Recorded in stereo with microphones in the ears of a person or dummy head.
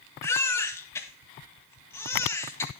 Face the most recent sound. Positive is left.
turn(degrees=10)  # may be behind; listen again after turning